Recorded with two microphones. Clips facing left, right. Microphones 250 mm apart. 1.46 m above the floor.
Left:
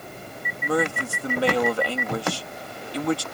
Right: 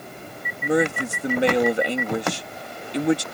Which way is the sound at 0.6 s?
20° right (ahead or behind).